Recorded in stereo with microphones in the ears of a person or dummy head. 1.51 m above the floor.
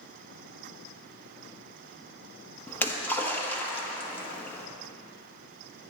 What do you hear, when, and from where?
2.7 s a splash: 10° left (ahead or behind), 1.3 m